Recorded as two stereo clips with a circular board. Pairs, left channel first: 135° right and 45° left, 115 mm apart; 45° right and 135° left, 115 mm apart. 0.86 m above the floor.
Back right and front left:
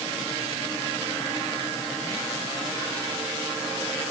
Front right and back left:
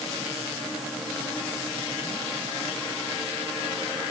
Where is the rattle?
No rattle in this recording.